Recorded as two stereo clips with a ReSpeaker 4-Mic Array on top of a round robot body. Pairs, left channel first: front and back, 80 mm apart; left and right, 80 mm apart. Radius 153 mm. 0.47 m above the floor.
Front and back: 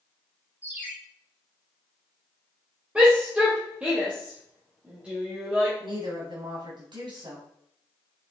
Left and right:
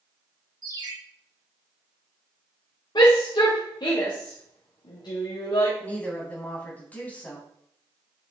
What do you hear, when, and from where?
0.6 s a ringtone: 115° right, 3.5 m
3.0 s a shout: 105° left, 2 m
5.8 s a woman speaking: 160° left, 3.5 m